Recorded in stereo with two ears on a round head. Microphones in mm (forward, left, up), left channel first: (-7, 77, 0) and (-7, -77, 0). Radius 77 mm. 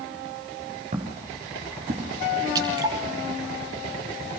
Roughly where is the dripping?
Right.